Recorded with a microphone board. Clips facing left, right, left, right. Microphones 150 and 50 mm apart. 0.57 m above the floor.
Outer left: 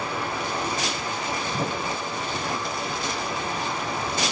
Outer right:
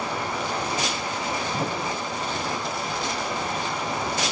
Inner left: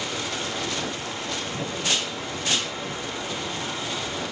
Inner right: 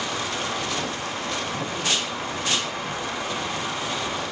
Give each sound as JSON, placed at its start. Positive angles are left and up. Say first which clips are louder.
{"t": 0.0, "sound": "running water", "louder": "outer right 1 dB, inner right 2 dB", "side_deg": -80, "distance_m": 5.0}